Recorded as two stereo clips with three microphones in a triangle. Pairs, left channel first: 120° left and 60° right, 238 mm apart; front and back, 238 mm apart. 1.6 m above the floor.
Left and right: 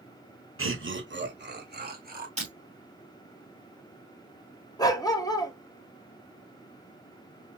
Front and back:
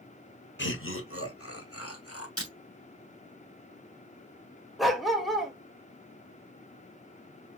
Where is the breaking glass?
5° right, 3.5 m.